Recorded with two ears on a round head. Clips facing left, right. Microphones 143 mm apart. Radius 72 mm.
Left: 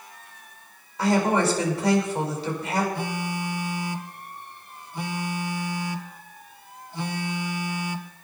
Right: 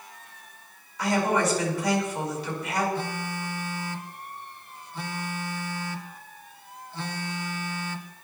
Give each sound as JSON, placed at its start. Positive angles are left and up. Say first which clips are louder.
{"t": 1.0, "sound": "a woman speaking", "louder": "left 3 dB", "side_deg": 25, "distance_m": 6.0}
{"t": 3.0, "sound": "a phone buzzing", "louder": "left 2 dB", "side_deg": 10, "distance_m": 0.8}